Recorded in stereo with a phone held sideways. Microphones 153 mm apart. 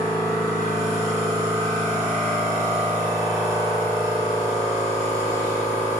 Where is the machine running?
20° right (ahead or behind), 3.5 m.